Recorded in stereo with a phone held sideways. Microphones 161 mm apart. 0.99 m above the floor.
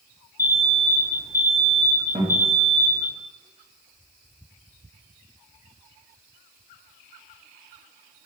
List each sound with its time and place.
0.4 s an alarm: 90° left, 0.9 m
2.1 s a guitar: 40° right (ahead or behind), 1.1 m